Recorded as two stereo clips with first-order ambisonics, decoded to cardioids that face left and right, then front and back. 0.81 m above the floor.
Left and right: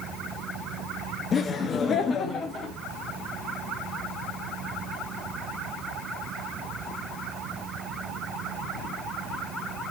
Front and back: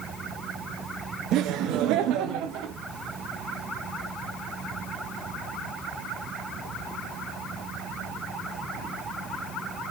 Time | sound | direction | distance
1.3 | laughter | 150° left | 0.5 m